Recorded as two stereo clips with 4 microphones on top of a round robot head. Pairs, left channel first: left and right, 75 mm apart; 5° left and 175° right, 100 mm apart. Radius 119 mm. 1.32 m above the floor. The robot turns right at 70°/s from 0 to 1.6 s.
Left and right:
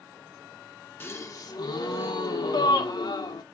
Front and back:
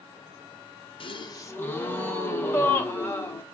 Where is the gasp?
30° left, 1.0 m; by 3.4 s 70° left, 1.0 m.